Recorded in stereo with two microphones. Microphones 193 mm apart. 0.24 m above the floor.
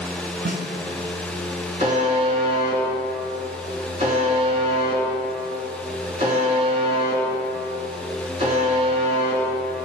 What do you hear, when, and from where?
0.5 s a snare drum: 60° right (ahead or behind), 1.0 m
1.8 s a buzzer: 35° right (ahead or behind), 3 m